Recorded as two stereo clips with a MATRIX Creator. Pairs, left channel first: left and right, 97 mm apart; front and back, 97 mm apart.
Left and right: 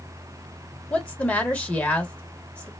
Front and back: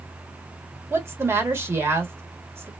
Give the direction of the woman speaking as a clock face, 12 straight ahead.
7 o'clock.